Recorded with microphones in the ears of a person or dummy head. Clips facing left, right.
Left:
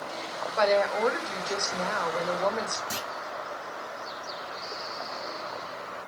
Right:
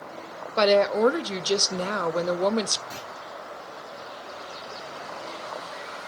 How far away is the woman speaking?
About 0.8 m.